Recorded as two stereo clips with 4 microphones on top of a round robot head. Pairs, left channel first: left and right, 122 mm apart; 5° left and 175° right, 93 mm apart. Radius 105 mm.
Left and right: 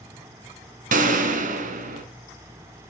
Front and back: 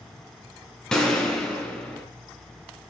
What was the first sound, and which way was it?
A gunshot, 80° right.